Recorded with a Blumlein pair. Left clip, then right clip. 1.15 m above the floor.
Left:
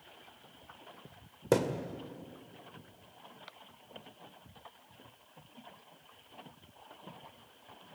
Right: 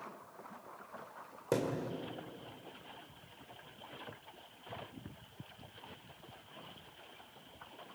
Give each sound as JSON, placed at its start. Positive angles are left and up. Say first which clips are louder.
{"t": 1.5, "sound": "a thud", "louder": "left 5 dB", "azimuth_deg": 20, "distance_m": 2.0}